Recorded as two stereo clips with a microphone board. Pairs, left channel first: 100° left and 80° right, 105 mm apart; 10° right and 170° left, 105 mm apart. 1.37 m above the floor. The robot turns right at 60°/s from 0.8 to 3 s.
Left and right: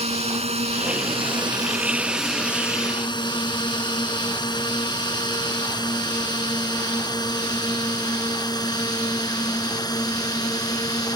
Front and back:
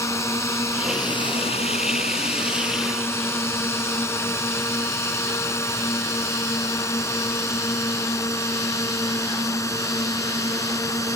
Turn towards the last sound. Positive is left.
turn(degrees=50)